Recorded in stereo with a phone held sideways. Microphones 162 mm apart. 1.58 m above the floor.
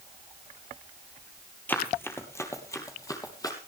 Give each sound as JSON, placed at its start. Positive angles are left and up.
{"t": 1.7, "sound": "running footsteps", "side_deg": 10, "distance_m": 2.5}